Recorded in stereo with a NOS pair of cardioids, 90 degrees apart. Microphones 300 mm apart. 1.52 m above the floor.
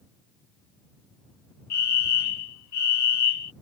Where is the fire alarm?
60° left.